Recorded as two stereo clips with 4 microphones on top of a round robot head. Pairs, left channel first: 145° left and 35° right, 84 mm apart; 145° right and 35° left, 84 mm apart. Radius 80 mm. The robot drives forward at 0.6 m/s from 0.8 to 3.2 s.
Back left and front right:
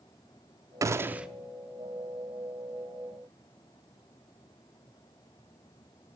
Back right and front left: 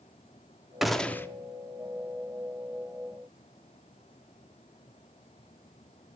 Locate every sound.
0.8 s a gunshot: 50° right, 0.5 m; by 1.3 s 105° right, 0.5 m